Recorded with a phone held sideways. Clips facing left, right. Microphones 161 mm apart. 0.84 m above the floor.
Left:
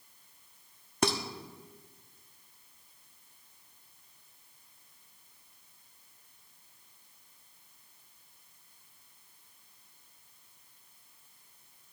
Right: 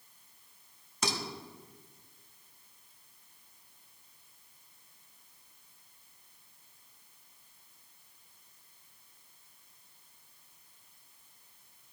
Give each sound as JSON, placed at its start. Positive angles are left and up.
{"t": 1.0, "sound": "dishes clattering", "side_deg": 60, "distance_m": 1.1}